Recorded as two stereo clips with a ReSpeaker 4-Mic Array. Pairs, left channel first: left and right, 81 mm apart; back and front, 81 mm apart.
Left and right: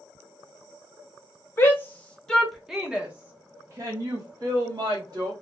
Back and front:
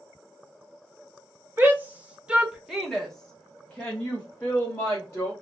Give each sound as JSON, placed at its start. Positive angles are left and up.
{"t": 1.6, "sound": "a shout", "azimuth_deg": 50, "distance_m": 1.1}